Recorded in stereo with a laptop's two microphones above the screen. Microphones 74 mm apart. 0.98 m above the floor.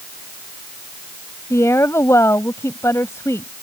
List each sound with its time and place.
1.5 s a woman speaking: 40° left (ahead or behind)